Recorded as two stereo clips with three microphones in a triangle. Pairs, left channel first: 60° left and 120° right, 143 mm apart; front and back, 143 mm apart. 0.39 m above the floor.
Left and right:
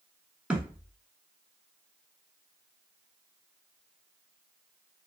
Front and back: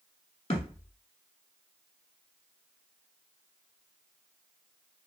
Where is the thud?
40° right, 0.6 m.